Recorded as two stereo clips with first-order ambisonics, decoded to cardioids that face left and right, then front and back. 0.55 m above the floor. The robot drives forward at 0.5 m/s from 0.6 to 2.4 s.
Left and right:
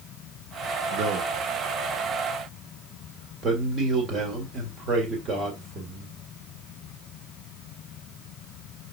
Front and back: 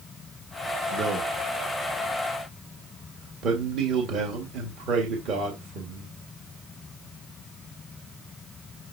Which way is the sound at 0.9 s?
125° right.